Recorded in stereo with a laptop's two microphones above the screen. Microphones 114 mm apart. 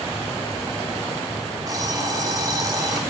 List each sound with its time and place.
1.7 s an alarm clock: 30° right (ahead or behind), 1.8 m